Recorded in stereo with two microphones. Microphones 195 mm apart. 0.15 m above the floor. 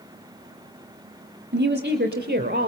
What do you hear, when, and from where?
1.5 s a woman speaking: 55° right (ahead or behind), 4.5 m; by 2.7 s 50° right (ahead or behind), 4 m